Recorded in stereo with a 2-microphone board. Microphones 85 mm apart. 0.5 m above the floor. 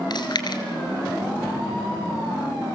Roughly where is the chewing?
Left.